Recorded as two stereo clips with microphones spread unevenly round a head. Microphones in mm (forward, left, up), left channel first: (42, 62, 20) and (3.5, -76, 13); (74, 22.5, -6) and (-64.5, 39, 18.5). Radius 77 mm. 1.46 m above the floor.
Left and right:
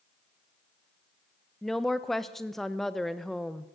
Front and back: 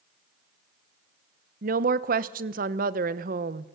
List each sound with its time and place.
1.6 s a woman speaking: 160° left, 1.0 m